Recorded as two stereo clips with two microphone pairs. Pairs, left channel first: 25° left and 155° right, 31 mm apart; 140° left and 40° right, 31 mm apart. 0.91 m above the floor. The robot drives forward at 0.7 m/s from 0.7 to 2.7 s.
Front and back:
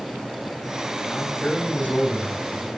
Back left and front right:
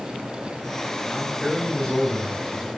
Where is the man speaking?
60° left, 3 m; by 2.7 s 80° left, 3 m.